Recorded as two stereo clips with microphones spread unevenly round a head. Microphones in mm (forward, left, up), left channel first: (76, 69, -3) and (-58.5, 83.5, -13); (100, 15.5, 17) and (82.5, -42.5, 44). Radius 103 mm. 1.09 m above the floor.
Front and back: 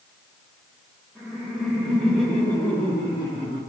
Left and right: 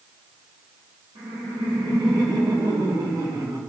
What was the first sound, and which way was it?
Laughter, 100° right.